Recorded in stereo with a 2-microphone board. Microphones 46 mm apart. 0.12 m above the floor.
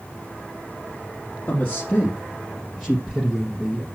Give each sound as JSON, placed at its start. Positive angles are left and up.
{"t": 1.5, "sound": "a man speaking", "side_deg": 30, "distance_m": 2.5}